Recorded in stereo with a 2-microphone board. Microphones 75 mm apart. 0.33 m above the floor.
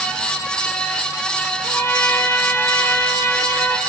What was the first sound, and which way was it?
A trumpet, 30° left (ahead or behind).